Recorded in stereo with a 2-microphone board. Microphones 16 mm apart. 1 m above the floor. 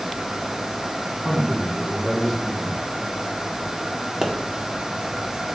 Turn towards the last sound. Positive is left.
turn(degrees=-35)  # may be behind; listen again after turning